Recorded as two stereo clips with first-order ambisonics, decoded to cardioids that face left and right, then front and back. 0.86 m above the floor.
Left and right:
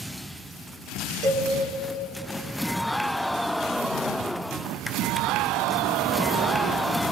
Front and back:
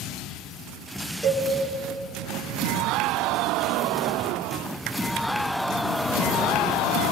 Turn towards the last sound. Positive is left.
turn(degrees=-95)